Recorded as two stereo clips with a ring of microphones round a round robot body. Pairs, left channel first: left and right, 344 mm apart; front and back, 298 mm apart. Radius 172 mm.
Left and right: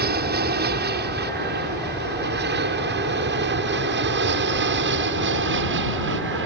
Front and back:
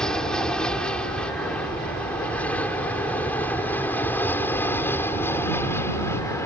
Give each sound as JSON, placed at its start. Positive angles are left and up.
{"t": 0.0, "sound": "an aircraft", "azimuth_deg": -85}